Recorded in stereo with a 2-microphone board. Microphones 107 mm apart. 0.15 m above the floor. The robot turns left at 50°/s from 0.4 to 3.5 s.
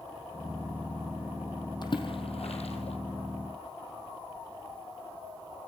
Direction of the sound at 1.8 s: 45° left (ahead or behind).